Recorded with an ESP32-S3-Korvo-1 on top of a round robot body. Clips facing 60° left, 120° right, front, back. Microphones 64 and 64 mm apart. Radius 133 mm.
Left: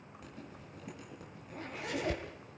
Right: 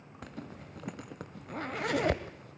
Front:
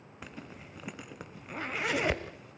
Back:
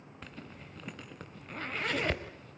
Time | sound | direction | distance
0.2 | a zipper | 80° right | 1.0 m